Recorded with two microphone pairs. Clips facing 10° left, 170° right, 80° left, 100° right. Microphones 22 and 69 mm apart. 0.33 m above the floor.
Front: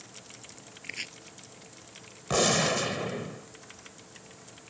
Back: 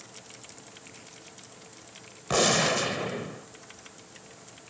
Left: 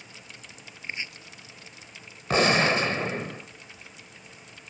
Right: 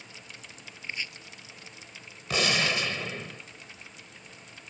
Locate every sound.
0.8 s chopping: 10° left
2.3 s a gunshot: 105° left